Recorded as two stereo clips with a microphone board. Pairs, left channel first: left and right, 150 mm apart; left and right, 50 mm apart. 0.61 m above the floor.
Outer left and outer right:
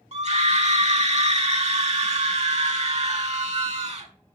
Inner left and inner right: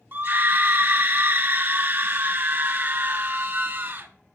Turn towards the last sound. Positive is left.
turn(degrees=-45)  # may be behind; listen again after turning